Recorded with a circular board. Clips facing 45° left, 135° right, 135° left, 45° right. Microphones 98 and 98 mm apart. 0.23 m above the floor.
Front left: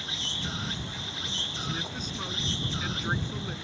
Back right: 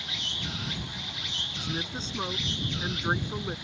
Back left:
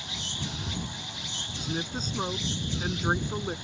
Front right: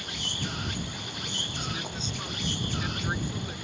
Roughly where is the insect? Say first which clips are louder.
Front left 1 dB, front right 2 dB; ahead.